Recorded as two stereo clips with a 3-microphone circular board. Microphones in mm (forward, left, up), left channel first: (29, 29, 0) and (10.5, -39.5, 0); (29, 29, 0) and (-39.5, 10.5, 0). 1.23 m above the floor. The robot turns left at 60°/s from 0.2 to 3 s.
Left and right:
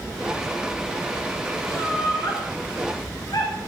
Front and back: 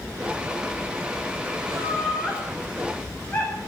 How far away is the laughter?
About 4.5 m.